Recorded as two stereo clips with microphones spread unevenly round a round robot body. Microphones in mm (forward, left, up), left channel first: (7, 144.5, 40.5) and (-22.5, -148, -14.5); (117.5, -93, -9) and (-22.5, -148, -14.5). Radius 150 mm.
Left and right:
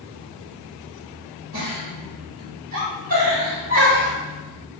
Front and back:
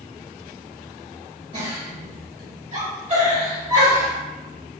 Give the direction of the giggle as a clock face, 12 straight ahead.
5 o'clock.